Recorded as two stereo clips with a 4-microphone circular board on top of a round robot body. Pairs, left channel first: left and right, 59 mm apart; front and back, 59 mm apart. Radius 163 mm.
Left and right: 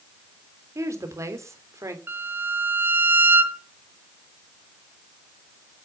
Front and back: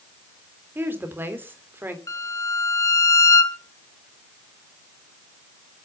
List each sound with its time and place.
0.8 s a woman speaking: 125° right, 3.5 m
2.1 s a violin: 35° right, 1.2 m